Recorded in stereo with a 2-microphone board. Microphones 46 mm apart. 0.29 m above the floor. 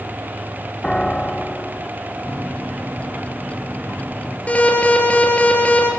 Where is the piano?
15° left (ahead or behind), 1.0 m.